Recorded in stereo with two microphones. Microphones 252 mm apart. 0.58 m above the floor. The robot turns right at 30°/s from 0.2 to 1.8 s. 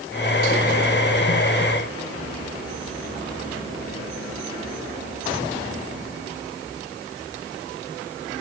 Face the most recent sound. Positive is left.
No sound to turn to.